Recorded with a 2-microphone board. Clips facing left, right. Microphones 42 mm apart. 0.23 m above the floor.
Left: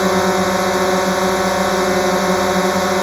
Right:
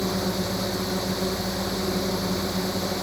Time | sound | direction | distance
0.0 | a drone | 70° left (ahead or behind) | ?